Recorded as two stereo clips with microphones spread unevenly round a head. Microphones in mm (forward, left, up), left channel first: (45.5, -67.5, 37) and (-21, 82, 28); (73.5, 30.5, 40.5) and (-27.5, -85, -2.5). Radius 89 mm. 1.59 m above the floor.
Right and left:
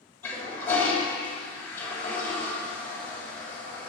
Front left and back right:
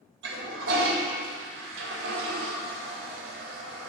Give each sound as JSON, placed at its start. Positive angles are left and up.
{"t": 0.2, "sound": "a toilet flushing", "azimuth_deg": -140, "distance_m": 2.5}